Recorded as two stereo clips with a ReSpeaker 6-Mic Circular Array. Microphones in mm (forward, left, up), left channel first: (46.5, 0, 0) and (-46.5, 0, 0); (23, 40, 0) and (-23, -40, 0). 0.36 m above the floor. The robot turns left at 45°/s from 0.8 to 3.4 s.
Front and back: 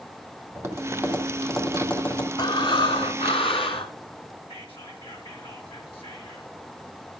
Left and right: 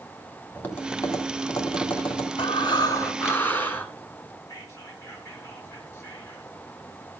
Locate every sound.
0.6 s tapping: 125° left, 2.5 m; by 2.3 s 60° left, 2.5 m
2.4 s breathing: 40° left, 1.2 m; by 3.9 s 10° right, 1.2 m
4.5 s whispering: straight ahead, 5.5 m